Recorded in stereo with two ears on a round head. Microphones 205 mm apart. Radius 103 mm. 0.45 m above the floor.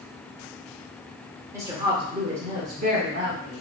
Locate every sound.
1.5 s a woman speaking: 15° right (ahead or behind), 1.0 m; by 3.6 s 40° right (ahead or behind), 1.2 m